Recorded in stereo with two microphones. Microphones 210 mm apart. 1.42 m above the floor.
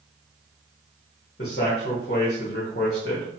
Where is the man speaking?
50° left (ahead or behind), 0.6 m.